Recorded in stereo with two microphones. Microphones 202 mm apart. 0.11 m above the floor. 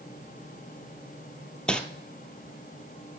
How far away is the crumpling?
About 0.6 m.